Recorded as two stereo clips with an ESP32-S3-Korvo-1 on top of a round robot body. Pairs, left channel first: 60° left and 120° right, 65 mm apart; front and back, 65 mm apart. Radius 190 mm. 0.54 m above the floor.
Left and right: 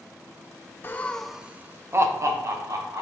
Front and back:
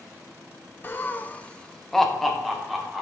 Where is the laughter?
35° left, 0.9 m; by 3.0 s 95° right, 2 m.